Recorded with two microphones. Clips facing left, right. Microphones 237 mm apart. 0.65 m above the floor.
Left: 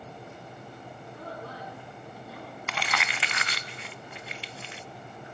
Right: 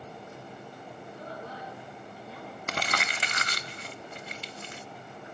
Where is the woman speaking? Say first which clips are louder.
Left 1 dB; 65° left (ahead or behind), 9 m.